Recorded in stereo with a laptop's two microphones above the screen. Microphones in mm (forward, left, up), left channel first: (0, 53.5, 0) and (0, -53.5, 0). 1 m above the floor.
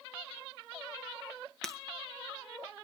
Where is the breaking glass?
5° left (ahead or behind), 1.8 m.